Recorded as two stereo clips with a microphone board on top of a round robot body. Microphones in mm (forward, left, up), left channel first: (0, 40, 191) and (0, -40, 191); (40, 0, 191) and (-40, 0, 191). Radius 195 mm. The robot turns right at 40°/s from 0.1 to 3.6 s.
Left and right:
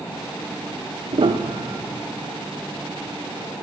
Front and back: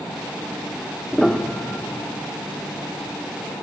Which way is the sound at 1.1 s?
90° right.